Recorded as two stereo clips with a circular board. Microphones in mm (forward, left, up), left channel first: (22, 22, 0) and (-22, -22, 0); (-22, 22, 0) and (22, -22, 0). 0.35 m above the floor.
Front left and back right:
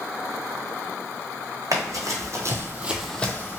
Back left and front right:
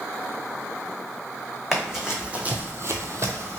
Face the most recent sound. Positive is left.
turn(degrees=-5)